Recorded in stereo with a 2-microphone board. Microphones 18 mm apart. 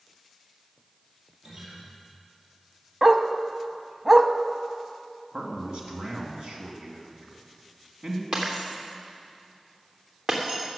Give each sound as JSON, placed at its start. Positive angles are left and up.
{"t": 1.4, "sound": "a guitar", "side_deg": -60, "distance_m": 5.0}
{"t": 3.0, "sound": "a dog barking", "side_deg": -25, "distance_m": 0.6}
{"t": 5.3, "sound": "a man speaking", "side_deg": -55, "distance_m": 2.0}
{"t": 8.3, "sound": "breaking glass", "side_deg": -45, "distance_m": 2.5}